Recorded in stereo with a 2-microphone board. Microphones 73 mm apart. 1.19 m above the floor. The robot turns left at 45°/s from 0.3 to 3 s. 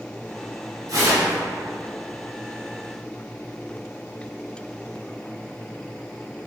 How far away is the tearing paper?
About 0.7 m.